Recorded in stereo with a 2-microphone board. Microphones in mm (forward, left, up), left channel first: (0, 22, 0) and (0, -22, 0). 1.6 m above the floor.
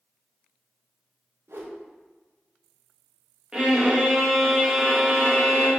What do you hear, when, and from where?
1.5 s a whoosh: 70° right (ahead or behind), 0.8 m
3.5 s a violin: 15° right (ahead or behind), 0.9 m